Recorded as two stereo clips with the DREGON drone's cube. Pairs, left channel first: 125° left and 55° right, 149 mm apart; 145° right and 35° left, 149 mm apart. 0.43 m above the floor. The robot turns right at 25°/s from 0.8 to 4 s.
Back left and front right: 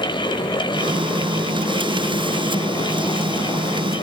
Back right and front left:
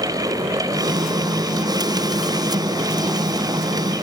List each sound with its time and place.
Only background noise.